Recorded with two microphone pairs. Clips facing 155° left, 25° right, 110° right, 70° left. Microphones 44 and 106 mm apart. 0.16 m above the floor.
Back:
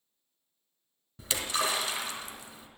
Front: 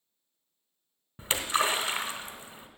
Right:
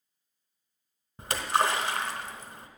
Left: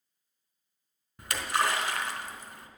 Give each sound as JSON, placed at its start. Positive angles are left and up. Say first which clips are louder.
{"t": 1.2, "sound": "a splash", "louder": "front 3 dB, right 3 dB", "azimuth_deg": -65, "distance_m": 1.1}